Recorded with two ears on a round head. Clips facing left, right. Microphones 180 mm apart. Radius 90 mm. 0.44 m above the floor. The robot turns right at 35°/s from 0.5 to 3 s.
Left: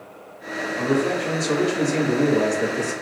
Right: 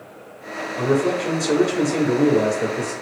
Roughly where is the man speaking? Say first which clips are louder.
Right 2 dB; right.